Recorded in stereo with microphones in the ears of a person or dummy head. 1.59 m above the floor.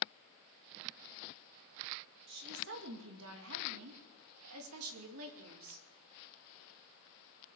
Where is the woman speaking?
55° right (ahead or behind), 2.5 m; by 5.9 s 75° right (ahead or behind), 3 m.